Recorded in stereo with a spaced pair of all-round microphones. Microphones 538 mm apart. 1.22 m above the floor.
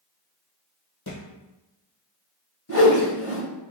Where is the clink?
I don't hear a clink.